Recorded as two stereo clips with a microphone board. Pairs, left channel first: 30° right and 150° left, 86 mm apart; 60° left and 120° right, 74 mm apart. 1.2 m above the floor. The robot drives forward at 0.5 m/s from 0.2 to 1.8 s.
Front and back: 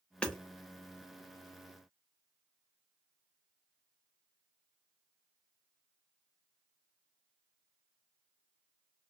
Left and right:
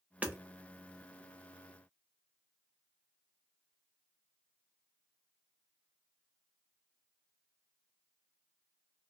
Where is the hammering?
85° right, 0.6 m; by 0.4 s 100° right, 0.6 m.